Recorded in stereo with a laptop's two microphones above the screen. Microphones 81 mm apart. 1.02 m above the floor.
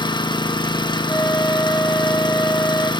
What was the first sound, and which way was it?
An engine running, 75° left (ahead or behind).